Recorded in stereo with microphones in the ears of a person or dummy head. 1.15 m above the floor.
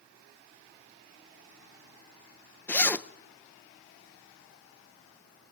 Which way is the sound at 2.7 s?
10° left (ahead or behind).